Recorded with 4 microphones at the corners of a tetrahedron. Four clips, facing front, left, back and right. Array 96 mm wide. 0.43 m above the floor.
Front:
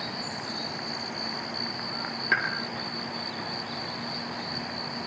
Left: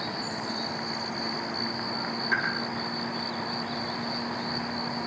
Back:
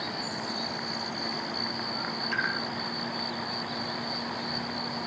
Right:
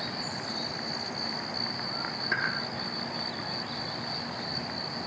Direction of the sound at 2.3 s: 10° right.